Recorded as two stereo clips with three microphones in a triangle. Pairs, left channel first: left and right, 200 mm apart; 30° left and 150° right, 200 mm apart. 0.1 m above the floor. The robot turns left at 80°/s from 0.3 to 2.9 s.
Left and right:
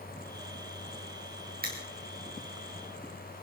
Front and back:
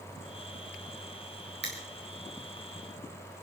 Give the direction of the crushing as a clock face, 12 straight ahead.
4 o'clock.